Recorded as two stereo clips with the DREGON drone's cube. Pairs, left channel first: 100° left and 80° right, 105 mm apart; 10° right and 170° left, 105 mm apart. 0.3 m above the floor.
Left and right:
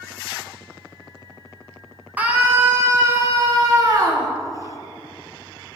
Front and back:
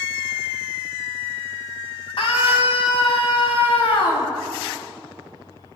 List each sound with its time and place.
2.2 s a scream: 5° right, 3 m; by 4.3 s 35° right, 4 m